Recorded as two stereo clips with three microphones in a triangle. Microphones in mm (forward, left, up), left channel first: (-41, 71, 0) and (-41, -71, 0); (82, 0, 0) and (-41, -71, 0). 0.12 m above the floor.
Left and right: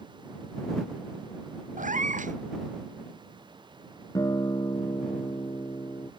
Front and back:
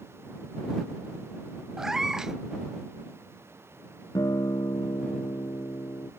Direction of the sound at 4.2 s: 60° left.